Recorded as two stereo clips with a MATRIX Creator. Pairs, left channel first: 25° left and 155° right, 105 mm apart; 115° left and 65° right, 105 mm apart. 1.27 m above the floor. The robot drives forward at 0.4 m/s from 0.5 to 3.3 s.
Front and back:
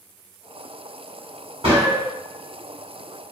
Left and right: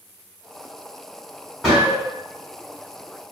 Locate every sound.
1.6 s a gunshot: 155° right, 1.6 m; by 2.1 s 160° right, 1.7 m